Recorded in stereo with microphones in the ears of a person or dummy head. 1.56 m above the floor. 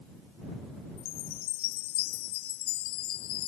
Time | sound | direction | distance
1.0 | a chime | 50° left (ahead or behind) | ?